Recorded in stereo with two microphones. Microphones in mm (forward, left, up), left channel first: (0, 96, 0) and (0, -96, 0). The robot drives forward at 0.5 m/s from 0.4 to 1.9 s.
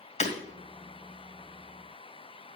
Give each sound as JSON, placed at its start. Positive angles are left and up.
{"t": 0.2, "sound": "breaking glass", "side_deg": 35, "distance_m": 1.7}